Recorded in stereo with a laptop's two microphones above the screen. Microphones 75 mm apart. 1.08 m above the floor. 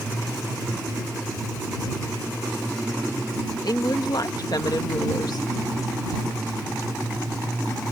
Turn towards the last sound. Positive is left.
turn(degrees=65)  # may be behind; listen again after turning